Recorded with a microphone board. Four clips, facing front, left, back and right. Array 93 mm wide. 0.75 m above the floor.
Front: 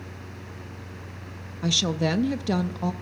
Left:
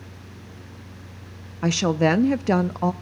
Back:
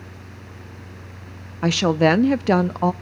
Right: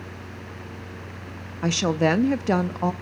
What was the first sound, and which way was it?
A woman speaking, straight behind.